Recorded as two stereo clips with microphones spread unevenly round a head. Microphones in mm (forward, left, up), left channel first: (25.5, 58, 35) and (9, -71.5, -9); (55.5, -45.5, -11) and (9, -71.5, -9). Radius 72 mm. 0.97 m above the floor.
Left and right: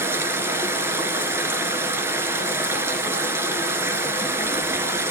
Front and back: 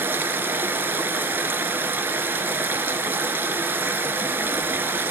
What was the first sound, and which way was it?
Running water, 175° left.